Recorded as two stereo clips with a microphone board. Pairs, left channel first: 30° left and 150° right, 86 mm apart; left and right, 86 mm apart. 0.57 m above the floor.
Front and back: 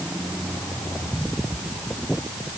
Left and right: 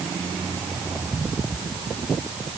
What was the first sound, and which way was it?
Only background noise.